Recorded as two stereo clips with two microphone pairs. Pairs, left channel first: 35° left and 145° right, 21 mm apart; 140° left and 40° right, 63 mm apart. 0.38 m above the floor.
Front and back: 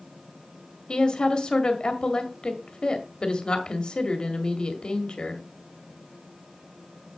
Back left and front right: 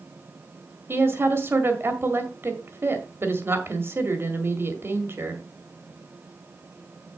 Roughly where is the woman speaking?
Ahead.